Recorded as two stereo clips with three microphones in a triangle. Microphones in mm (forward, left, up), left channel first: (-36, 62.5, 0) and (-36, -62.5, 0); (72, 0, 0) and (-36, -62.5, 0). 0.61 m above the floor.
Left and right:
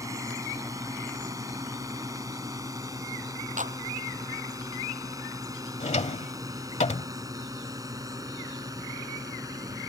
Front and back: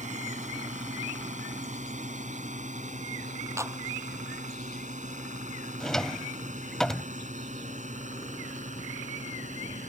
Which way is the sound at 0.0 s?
155° right.